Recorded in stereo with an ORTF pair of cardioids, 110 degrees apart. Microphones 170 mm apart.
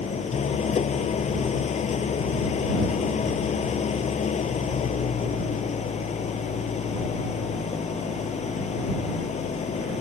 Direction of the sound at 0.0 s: 45° left.